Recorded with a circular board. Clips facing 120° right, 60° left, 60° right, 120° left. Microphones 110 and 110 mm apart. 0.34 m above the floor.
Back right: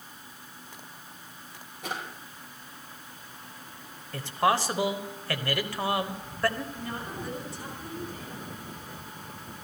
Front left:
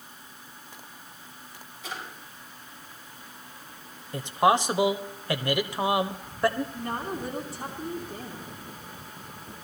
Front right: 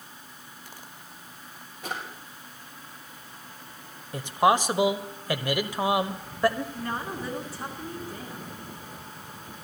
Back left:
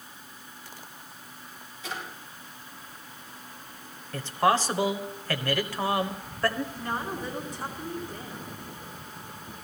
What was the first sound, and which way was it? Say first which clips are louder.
A drawer: back right 3 dB, front right 2 dB; 95° right.